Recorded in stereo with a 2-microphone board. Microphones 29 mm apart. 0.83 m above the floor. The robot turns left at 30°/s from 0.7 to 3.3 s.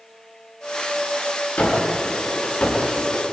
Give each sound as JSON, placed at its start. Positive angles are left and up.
{"t": 1.6, "sound": "a gunshot", "azimuth_deg": 75, "distance_m": 8.5}